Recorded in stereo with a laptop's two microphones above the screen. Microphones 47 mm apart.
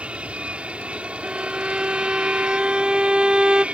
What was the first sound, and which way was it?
An aircraft, 25° right (ahead or behind).